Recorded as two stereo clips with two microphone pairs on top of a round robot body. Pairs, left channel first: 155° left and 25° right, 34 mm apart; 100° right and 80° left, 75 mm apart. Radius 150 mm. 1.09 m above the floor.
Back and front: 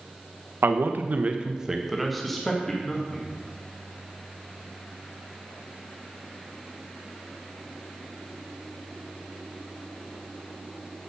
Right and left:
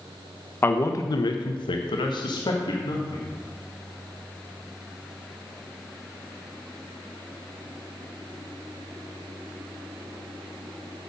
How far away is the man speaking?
About 0.9 m.